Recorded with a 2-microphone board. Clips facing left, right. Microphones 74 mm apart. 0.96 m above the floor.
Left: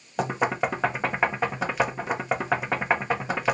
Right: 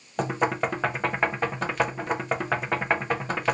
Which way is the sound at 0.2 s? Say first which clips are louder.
Even; 5° left (ahead or behind).